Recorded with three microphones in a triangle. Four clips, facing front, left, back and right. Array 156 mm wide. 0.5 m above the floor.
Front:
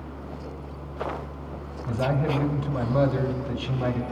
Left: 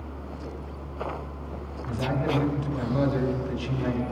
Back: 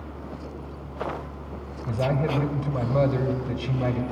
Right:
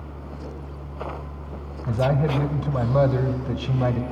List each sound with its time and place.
1.9 s a man speaking: 100° right, 1.8 m